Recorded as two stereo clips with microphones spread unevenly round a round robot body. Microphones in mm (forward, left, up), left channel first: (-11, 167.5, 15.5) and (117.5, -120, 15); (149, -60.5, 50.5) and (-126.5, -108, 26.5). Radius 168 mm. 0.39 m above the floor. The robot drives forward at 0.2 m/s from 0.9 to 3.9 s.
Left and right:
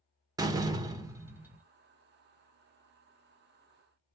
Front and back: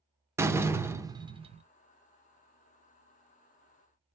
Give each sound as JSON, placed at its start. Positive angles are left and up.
{"t": 0.4, "sound": "a door slam", "azimuth_deg": -120, "distance_m": 0.6}